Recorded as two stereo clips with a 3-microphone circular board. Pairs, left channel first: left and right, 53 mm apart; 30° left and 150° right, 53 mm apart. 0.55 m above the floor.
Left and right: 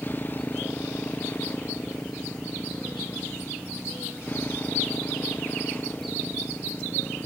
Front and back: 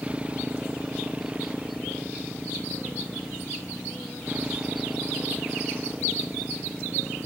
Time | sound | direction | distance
0.0 | a motorcycle | 145° left | ?